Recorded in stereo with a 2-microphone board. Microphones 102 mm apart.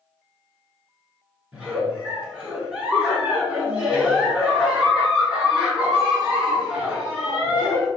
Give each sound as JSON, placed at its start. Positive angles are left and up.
{"t": 1.5, "sound": "a giggle", "side_deg": -10, "distance_m": 1.4}